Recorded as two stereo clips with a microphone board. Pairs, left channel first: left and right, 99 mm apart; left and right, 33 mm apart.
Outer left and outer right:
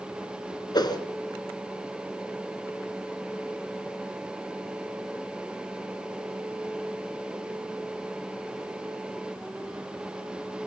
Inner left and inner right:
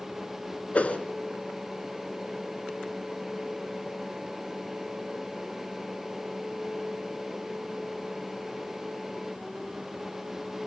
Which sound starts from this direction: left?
A whoosh, at 0.7 s.